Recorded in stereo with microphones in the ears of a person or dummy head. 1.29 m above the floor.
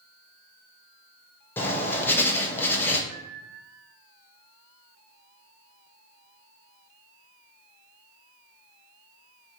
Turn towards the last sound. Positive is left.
turn(degrees=-25)  # may be behind; listen again after turning